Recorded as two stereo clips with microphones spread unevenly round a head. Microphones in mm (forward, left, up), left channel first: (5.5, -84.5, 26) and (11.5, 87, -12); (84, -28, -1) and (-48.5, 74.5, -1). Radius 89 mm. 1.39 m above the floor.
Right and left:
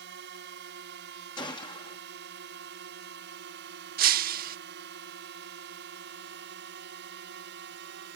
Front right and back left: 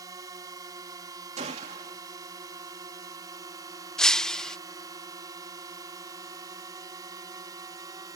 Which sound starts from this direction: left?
A drone, at 0.0 s.